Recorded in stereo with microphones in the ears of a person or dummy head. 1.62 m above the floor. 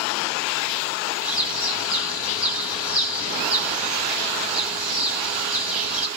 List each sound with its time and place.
1.2 s a bird: 5° right (ahead or behind), 1.3 m